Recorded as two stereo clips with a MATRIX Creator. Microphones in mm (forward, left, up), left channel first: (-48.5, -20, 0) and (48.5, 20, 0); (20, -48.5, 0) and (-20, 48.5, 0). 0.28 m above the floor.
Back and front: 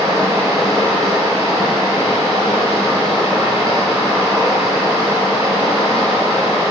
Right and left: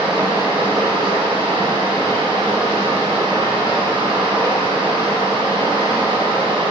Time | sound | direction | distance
0.0 | running water | 80° left | 4.5 m